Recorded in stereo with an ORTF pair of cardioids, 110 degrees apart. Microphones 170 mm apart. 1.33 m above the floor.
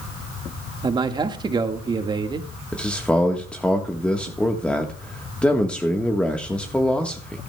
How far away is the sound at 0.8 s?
About 1.7 m.